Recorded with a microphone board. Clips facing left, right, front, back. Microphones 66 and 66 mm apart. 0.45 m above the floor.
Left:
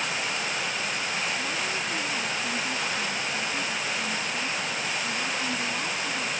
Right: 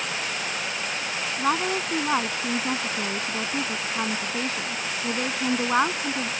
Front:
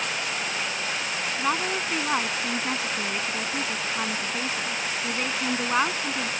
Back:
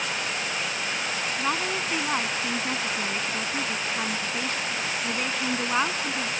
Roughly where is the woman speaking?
Right.